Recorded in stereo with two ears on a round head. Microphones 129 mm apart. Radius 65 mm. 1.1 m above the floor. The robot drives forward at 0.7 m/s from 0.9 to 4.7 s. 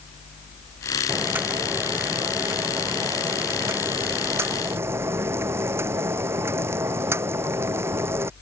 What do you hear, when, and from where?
1.1 s boiling: 15° right (ahead or behind)